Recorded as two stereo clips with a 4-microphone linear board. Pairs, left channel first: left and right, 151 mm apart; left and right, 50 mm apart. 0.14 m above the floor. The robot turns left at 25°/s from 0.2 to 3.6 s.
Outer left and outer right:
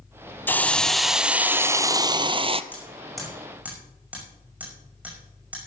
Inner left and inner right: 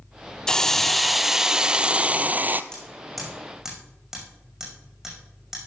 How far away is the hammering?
About 5.5 m.